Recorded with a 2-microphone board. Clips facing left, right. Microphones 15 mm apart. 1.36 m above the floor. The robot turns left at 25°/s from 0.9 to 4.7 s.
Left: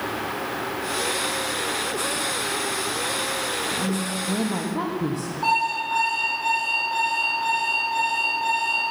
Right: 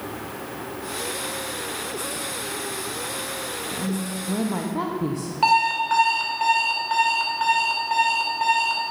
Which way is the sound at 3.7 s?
10° left (ahead or behind).